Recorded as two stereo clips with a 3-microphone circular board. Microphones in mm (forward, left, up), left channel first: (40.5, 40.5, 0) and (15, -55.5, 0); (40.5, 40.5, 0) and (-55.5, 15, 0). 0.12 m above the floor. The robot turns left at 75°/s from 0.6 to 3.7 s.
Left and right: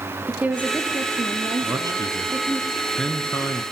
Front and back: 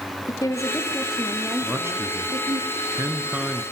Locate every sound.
0.3 s a woman speaking: 35° right, 2.5 m; by 2.6 s 175° left, 2.5 m
1.6 s a man speaking: 100° right, 1.8 m; by 3.6 s 110° left, 1.8 m